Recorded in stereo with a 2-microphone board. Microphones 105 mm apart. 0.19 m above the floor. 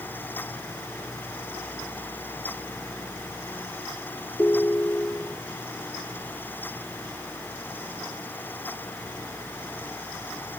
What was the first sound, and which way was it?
A ringtone, 15° left (ahead or behind).